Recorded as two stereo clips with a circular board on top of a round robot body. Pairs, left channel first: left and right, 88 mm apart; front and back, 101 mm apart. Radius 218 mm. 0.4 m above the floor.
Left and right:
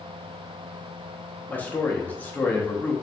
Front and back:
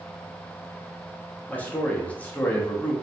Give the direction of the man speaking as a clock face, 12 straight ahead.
10 o'clock.